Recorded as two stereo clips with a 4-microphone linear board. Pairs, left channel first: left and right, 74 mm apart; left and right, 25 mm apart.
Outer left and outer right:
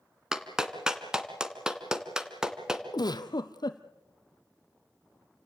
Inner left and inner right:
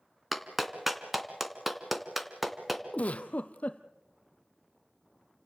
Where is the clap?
10° right (ahead or behind), 2 m.